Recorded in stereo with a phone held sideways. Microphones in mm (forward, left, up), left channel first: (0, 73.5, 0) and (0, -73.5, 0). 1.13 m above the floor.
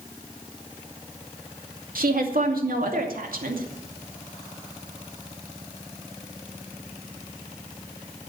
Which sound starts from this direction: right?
A woman speaking, at 1.9 s.